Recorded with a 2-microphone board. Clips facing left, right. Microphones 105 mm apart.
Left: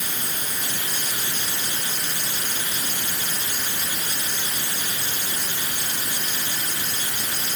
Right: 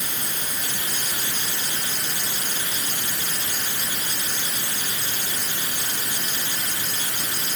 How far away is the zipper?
No zipper in this recording.